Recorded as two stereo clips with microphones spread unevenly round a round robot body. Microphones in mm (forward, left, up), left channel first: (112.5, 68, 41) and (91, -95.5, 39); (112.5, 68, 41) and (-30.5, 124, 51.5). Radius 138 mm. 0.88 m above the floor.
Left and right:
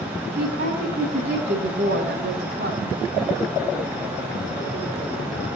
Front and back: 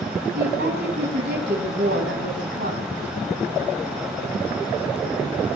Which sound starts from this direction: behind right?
A woman speaking, at 0.3 s.